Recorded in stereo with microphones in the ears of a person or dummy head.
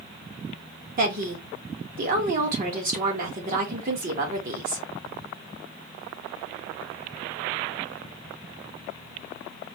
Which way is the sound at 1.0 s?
50° right (ahead or behind).